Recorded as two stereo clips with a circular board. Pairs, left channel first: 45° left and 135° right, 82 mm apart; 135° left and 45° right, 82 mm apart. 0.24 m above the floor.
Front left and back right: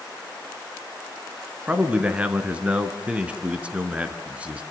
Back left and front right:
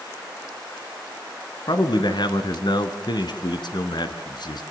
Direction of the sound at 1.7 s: 150° left.